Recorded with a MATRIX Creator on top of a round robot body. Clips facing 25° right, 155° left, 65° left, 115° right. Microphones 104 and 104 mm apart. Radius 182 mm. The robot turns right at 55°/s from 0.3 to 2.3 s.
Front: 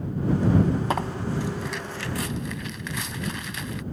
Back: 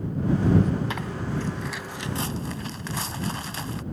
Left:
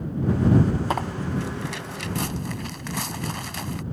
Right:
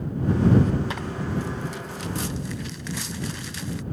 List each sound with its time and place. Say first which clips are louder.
0.9 s tearing paper: front 3 dB, left 3 dB; 25° left; by 3.8 s 100° left